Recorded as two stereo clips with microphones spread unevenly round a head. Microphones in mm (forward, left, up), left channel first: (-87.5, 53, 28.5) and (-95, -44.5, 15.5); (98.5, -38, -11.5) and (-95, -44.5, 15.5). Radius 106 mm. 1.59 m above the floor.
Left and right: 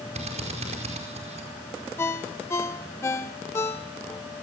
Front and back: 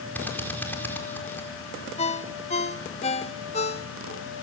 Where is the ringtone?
50° left, 0.8 m.